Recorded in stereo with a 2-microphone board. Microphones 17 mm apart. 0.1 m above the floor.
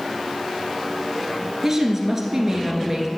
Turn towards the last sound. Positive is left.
turn(degrees=-20)  # may be behind; listen again after turning